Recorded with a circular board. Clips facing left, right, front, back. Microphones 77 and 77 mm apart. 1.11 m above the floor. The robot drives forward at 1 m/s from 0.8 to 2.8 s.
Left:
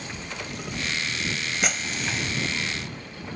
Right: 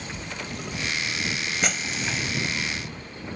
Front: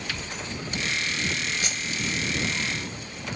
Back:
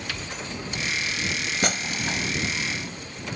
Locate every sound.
1.6 s breaking glass: straight behind